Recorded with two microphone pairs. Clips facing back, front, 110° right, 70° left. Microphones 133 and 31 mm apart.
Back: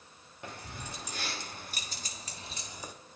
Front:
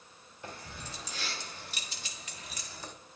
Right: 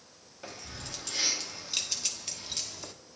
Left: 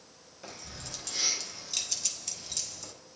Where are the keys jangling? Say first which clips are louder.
Back 1 dB, right 2 dB; 170° left, 1.6 m; by 2.9 s 110° right, 0.7 m.